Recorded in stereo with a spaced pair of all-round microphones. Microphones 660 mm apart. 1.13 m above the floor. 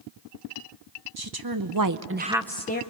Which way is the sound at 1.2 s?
35° right (ahead or behind).